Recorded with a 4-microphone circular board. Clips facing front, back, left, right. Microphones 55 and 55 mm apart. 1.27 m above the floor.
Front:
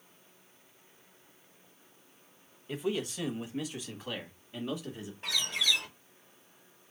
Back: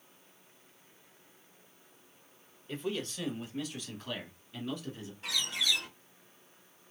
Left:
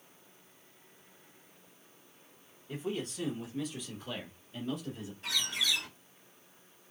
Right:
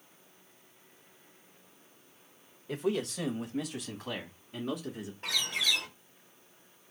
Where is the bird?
55° right, 2.5 m.